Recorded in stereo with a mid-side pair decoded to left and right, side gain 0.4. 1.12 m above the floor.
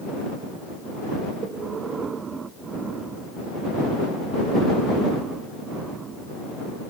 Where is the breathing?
50° right.